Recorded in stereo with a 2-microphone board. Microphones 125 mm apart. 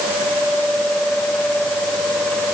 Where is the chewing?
I don't hear chewing.